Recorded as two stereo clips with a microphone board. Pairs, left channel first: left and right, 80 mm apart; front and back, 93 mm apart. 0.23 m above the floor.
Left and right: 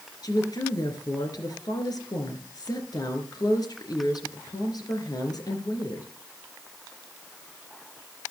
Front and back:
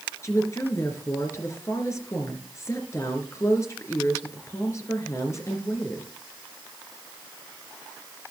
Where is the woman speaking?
55° left, 3 m.